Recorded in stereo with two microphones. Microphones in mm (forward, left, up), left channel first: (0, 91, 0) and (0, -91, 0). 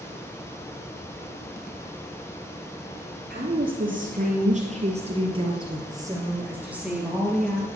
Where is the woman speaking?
55° right (ahead or behind), 4 m; by 7.7 s 5° left (ahead or behind), 3.5 m.